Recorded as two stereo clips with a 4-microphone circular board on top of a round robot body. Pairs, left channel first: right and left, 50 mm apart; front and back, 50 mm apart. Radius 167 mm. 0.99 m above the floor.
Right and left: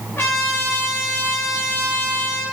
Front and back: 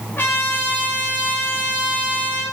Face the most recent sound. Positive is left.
turn(degrees=-50)